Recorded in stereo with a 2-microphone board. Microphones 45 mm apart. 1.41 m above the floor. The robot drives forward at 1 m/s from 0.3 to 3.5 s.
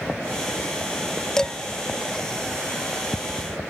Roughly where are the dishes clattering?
Centre.